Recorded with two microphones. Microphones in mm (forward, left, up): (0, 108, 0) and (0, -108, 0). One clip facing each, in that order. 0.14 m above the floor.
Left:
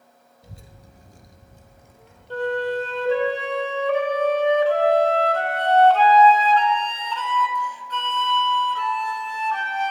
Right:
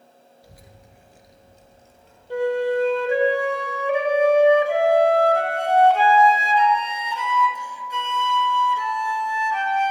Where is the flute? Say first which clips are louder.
Right 3 dB; 10° right (ahead or behind), 1.0 m.